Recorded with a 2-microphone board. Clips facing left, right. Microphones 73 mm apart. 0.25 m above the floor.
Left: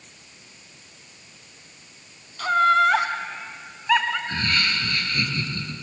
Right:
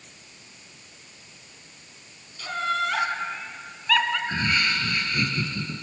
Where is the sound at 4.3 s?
10° right (ahead or behind), 4 m.